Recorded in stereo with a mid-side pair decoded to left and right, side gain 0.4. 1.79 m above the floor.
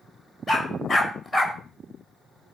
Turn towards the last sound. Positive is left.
turn(degrees=25)